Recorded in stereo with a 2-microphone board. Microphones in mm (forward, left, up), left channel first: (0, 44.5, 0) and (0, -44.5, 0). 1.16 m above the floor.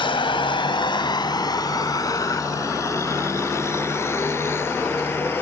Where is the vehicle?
85° left; by 5.4 s 25° left (ahead or behind).